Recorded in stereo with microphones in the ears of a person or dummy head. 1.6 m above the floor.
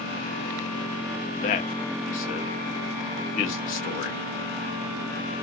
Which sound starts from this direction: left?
A man speaking, at 1.4 s.